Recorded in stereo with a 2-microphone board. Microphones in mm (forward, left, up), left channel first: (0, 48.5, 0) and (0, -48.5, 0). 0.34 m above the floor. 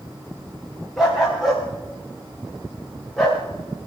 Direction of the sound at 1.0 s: Centre (ahead or behind).